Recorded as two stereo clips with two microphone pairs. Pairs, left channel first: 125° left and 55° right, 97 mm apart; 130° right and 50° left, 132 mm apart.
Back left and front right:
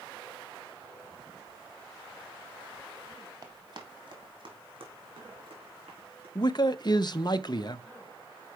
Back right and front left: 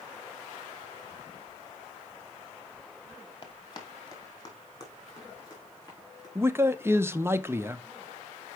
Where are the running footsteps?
90° right, 1.7 m; by 6.2 s 65° right, 5 m.